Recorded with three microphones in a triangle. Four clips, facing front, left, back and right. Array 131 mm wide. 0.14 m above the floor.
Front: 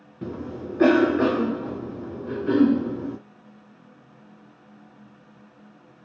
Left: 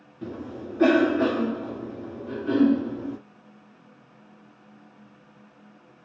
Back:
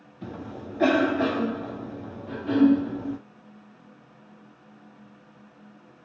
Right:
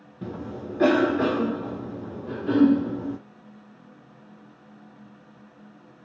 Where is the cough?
15° right, 1.7 m.